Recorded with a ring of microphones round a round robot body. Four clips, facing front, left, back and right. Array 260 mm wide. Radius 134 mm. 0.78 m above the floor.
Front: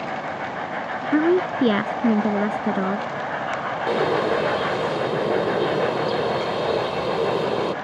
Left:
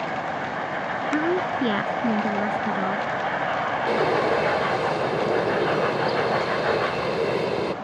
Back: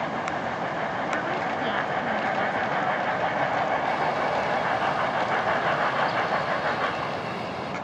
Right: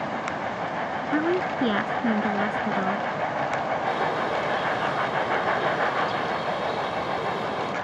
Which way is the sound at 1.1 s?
Straight ahead.